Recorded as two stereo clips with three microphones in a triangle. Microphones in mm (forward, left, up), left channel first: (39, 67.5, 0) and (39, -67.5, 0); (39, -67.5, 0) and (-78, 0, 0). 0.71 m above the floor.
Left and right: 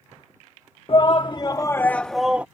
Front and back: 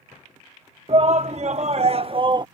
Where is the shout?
125° left; by 2.5 s 165° right.